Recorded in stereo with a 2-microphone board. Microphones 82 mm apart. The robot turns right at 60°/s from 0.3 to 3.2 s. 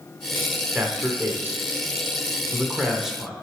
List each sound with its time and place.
0.7 s a man speaking: 15° right (ahead or behind), 1.2 m; by 3.3 s centre (ahead or behind), 1.2 m